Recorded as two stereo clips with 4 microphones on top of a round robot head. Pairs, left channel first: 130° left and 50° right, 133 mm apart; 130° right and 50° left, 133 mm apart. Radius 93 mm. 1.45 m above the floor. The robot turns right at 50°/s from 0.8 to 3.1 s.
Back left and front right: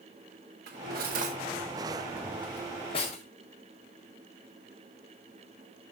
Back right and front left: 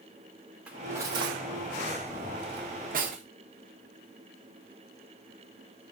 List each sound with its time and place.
0.7 s cutlery clinking: 30° right, 1.6 m; by 3.2 s 85° left, 1.6 m